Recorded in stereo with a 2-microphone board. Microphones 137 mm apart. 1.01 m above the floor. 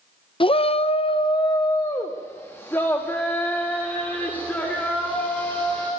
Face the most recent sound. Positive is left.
turn(degrees=10)  # may be behind; listen again after turning